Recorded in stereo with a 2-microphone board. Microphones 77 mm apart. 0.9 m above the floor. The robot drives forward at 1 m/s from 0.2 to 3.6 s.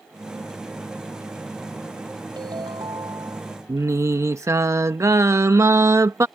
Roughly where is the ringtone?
Right.